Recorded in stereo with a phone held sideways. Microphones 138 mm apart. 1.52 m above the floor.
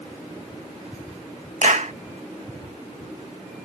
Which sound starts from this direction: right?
A clap, at 1.6 s.